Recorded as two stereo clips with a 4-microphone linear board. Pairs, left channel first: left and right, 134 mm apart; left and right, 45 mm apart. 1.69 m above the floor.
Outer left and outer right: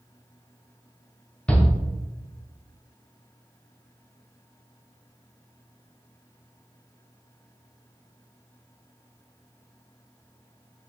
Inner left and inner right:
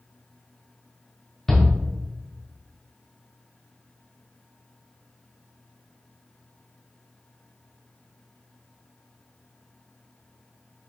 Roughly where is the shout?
Centre.